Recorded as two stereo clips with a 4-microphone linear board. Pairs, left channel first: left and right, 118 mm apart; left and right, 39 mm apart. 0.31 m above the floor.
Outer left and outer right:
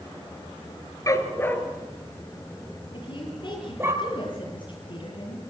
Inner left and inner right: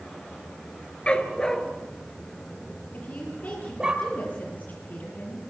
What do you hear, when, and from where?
1.1 s a dog barking: 30° left (ahead or behind), 2 m; by 3.9 s 20° right (ahead or behind), 4 m
2.9 s a woman speaking: 45° left (ahead or behind), 8.5 m